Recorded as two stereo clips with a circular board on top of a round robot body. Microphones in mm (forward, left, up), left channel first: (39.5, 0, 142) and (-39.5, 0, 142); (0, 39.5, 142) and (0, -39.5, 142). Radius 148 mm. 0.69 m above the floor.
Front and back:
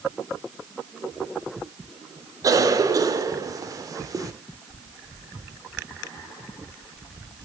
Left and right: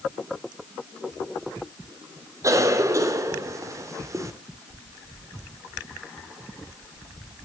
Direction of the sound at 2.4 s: 140° right.